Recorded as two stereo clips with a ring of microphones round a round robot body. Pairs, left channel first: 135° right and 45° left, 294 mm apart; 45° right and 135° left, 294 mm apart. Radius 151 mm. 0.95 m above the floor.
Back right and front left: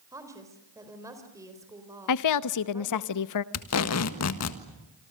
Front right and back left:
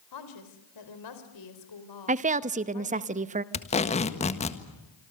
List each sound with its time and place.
0.1 s a woman speaking: 35° right, 4 m
2.1 s a woman speaking: 160° right, 1.0 m
3.5 s tape being pulled: 110° right, 1.6 m